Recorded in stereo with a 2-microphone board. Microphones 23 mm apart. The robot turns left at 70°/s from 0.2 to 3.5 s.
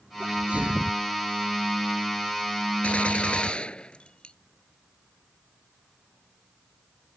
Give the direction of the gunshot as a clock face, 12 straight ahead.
9 o'clock.